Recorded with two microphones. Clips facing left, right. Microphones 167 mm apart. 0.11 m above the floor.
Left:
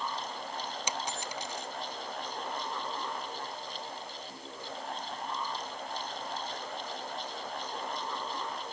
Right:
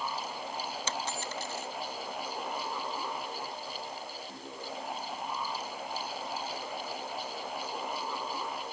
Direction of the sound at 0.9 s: 15° left (ahead or behind).